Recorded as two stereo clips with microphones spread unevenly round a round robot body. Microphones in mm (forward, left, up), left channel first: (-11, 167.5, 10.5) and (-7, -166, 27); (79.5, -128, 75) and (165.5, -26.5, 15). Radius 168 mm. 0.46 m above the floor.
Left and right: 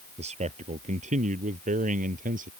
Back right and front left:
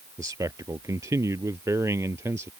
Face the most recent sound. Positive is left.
turn(degrees=-20)